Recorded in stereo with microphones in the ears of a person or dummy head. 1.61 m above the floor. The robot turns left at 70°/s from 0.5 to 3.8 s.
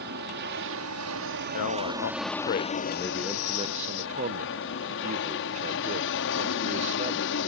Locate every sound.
0.0 s an aircraft: 60° right; by 7.5 s 70° left
1.5 s a man speaking: 120° left; by 7.5 s 40° right